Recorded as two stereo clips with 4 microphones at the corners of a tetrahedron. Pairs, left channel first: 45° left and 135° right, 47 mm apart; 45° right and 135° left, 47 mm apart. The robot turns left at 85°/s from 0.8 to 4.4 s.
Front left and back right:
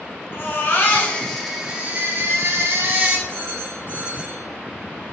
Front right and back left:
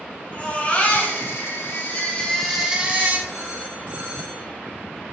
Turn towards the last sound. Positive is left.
turn(degrees=130)